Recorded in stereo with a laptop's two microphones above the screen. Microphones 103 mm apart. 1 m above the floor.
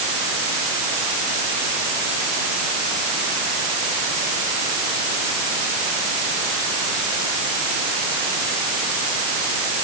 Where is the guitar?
I don't hear a guitar.